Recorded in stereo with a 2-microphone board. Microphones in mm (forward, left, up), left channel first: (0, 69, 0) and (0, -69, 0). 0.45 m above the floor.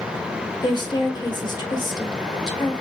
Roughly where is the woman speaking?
Left.